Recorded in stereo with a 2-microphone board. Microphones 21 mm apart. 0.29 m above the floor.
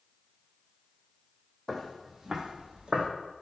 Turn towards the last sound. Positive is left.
turn(degrees=-60)  # may be behind; listen again after turning